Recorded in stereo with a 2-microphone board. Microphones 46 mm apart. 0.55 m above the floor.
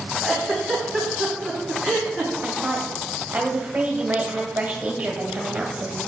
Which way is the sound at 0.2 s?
5° left (ahead or behind).